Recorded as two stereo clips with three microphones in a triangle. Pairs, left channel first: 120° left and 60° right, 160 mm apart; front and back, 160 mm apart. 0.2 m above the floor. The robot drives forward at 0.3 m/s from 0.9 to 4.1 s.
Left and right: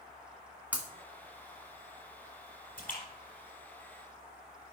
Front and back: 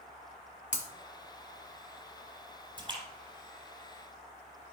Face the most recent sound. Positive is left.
turn(degrees=135)